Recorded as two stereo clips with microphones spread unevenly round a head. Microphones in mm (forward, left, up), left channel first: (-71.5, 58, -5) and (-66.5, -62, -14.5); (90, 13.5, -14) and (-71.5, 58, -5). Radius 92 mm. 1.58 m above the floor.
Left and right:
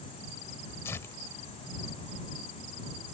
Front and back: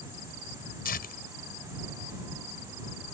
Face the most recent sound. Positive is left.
turn(degrees=15)